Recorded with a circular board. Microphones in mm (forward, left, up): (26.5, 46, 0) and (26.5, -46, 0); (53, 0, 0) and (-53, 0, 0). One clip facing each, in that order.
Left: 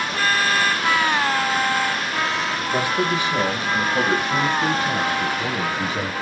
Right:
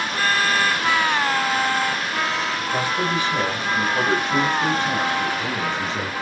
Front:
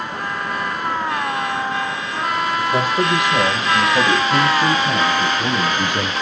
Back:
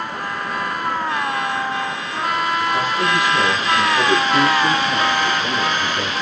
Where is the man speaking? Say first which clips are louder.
Left 3 dB, front 1 dB; 20° left, 8 m; by 6.1 s 10° left, 7 m.